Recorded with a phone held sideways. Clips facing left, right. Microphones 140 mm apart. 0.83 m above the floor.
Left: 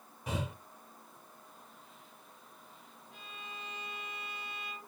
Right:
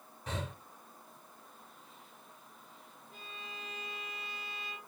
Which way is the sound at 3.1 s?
35° right (ahead or behind).